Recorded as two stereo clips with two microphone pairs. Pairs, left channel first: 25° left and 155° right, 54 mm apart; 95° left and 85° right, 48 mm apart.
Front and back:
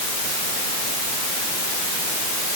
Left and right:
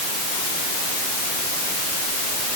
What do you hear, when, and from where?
Only background noise.